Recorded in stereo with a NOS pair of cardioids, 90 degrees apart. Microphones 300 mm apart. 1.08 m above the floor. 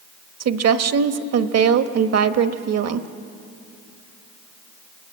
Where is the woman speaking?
55° right, 1.2 m.